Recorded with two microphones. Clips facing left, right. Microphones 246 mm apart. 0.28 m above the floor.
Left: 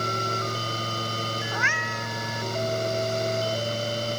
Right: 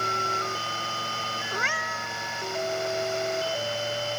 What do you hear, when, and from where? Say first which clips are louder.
1.5 s a cat meowing: left 2 dB; 40° right (ahead or behind)